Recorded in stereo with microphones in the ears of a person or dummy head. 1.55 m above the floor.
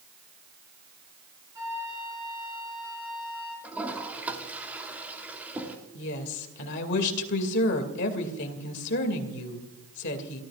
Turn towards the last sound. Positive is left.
turn(degrees=65)  # may be behind; listen again after turning